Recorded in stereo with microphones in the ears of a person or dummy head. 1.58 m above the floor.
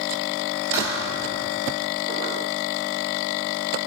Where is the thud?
10° right (ahead or behind), 5.5 m.